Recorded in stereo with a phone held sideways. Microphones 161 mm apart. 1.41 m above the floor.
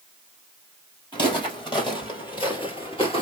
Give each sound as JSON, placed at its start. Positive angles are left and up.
{"t": 1.1, "sound": "footsteps", "side_deg": 30, "distance_m": 2.5}